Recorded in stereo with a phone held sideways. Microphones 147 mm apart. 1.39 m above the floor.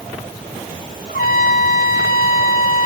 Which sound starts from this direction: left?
A trumpet, at 1.1 s.